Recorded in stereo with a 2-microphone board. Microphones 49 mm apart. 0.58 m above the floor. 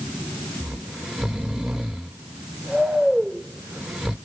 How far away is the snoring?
About 0.8 m.